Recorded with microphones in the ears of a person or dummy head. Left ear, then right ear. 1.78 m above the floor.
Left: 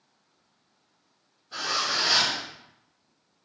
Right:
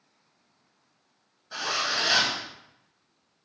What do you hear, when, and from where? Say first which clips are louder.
1.5 s a zipper: left 1 dB; 60° right (ahead or behind), 1.8 m